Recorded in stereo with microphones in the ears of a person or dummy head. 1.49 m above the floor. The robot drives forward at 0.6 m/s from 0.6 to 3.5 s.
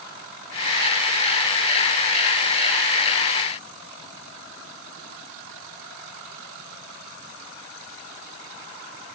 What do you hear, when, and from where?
Only background noise.